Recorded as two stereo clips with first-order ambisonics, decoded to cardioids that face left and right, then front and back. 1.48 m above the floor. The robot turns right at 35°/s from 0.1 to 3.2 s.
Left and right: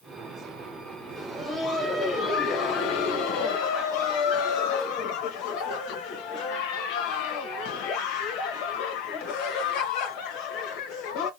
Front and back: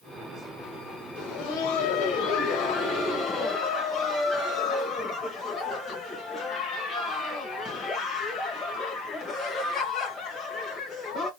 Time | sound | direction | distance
1.2 | laughter | 10° right | 1.2 m